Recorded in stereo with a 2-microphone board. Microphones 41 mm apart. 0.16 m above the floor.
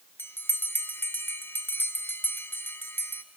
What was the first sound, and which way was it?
A bell, 60° left (ahead or behind).